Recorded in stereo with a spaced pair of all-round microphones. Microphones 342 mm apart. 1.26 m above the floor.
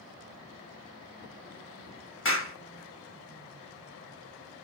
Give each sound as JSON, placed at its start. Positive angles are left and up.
{"t": 2.2, "sound": "a clap", "side_deg": 35, "distance_m": 1.4}